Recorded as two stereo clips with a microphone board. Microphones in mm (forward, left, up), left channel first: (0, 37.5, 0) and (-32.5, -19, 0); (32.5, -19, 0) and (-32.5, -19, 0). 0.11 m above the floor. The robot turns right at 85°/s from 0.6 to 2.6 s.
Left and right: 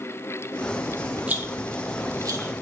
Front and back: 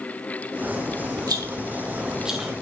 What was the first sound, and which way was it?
A rattle, 175° left.